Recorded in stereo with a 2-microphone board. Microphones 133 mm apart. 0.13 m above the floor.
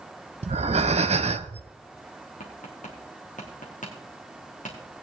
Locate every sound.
0.4 s breathing: 55° right (ahead or behind), 0.6 m
2.4 s tapping: 80° left, 3 m